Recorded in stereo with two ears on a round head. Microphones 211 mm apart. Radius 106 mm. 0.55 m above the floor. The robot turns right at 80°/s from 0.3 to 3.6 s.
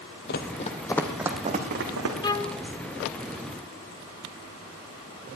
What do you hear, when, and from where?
0.3 s running footsteps: 45° left (ahead or behind), 1.0 m; by 2.2 s 75° right (ahead or behind), 2.5 m
2.2 s a violin: 20° left (ahead or behind), 0.6 m; by 2.6 s 10° left (ahead or behind), 0.6 m